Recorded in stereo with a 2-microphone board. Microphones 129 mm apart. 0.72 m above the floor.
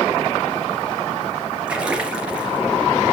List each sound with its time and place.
1.7 s a splash: 10° right (ahead or behind), 3 m